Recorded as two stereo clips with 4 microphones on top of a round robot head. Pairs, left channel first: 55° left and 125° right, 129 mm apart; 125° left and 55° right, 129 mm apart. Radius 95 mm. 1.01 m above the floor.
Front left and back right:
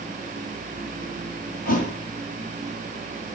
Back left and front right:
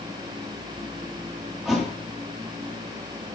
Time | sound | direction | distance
1.6 | a thud | 30° left | 4.5 m